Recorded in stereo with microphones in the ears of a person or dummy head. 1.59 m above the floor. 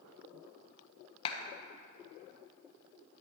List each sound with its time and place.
1.2 s a clap: 25° left (ahead or behind), 1.1 m